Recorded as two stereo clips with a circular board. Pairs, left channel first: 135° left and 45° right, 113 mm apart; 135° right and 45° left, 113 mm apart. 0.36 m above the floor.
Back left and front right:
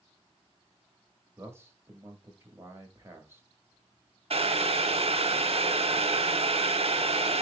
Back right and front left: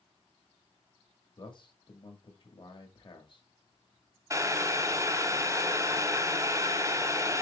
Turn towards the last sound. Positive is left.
turn(degrees=-15)